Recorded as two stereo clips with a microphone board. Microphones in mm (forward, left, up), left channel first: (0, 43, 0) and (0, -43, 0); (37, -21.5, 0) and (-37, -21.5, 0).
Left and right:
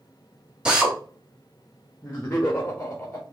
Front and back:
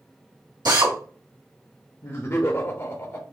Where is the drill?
170° right, 1.8 m.